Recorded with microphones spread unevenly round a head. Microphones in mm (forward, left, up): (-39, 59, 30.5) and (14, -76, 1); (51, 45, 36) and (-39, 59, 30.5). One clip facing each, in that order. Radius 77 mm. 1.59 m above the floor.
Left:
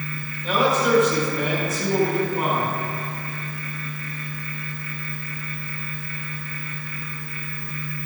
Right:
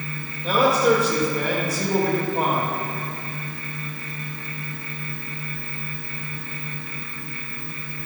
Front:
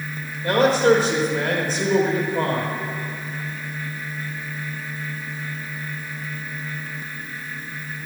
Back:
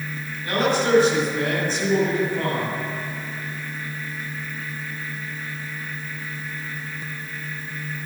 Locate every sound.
0.4 s a man speaking: 10° right, 3 m